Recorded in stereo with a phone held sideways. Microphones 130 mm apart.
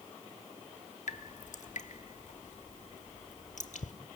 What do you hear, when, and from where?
1.1 s dripping: 70° left (ahead or behind), 1.5 m